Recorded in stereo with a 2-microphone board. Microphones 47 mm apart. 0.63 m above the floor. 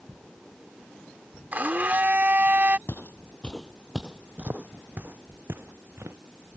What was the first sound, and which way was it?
A blender, 40° right (ahead or behind).